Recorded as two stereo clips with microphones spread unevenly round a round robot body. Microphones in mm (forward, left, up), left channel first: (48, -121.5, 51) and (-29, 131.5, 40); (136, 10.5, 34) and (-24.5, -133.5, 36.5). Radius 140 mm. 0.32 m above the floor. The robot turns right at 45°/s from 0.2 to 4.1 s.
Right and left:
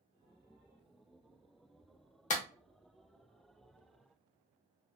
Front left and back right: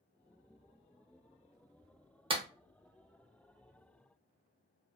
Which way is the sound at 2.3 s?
100° right.